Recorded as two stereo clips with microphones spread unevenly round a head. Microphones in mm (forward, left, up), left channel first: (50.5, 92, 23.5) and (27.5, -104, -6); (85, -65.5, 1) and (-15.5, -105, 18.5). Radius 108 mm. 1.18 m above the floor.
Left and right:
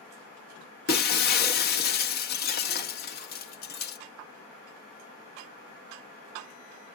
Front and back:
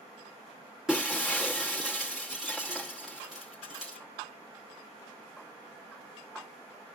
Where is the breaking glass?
120° left, 0.8 m.